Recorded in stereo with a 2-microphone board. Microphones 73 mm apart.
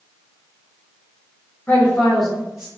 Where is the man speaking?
30° left (ahead or behind), 0.9 m; by 2.7 s 15° right (ahead or behind), 1.1 m.